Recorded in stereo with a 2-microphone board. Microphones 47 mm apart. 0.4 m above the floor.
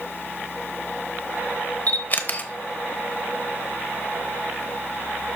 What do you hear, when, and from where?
1.9 s a camera shutter: 40° left (ahead or behind), 0.8 m